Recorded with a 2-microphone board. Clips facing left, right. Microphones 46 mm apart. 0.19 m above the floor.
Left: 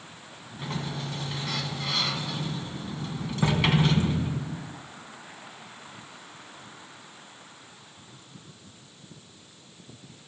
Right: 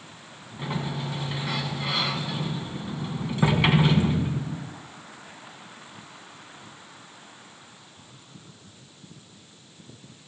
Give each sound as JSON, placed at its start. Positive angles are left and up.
{"t": 0.6, "sound": "a sliding door", "side_deg": -15, "distance_m": 2.0}